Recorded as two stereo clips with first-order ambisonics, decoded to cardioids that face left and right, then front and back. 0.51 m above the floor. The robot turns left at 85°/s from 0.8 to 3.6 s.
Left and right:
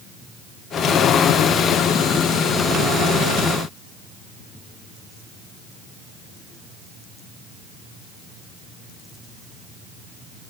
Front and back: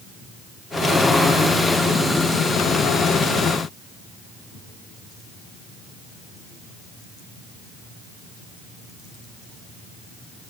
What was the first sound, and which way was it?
Only background noise.